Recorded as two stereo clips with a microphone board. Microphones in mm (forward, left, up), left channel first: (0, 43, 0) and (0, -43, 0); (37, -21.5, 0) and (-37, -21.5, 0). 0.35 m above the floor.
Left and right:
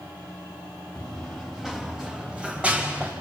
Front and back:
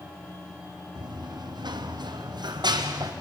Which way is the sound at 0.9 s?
175° left.